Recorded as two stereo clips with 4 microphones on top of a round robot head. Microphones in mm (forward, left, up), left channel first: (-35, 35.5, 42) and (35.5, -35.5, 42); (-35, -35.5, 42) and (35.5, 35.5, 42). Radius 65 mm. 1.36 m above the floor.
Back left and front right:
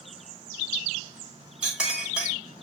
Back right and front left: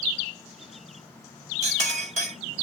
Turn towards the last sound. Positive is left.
turn(degrees=35)